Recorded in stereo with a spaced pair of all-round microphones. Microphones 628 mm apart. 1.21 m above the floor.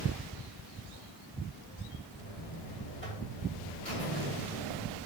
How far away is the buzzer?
About 3 m.